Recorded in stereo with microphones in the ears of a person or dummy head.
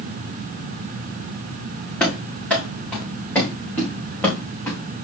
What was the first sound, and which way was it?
Running footsteps, centre (ahead or behind).